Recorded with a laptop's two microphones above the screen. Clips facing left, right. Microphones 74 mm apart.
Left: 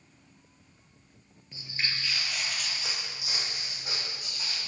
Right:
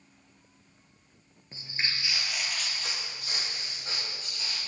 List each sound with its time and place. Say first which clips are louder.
1.5 s footsteps: even; 30° right (ahead or behind), 1.2 m; by 4.6 s 15° left (ahead or behind), 4.5 m